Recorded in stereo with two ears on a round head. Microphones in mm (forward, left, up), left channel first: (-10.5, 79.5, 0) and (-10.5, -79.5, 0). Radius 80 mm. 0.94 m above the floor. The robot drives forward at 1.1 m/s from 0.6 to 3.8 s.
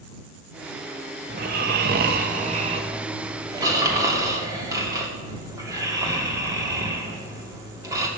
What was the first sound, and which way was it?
Snoring, 45° right (ahead or behind).